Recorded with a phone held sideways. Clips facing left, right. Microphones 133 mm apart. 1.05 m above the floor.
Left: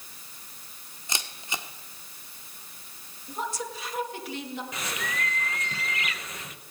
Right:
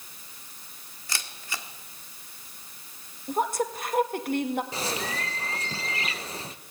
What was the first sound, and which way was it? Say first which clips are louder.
A camera shutter: left 2 dB; 20° left (ahead or behind).